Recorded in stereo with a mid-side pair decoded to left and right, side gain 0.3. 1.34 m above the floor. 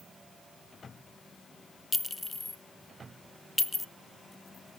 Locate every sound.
1.9 s a clink: 20° left, 0.7 m